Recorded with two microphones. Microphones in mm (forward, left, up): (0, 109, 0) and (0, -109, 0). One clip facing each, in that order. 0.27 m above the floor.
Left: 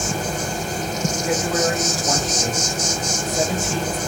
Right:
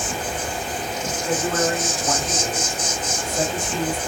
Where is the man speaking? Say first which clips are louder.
Even; 5° left (ahead or behind), 1.4 m.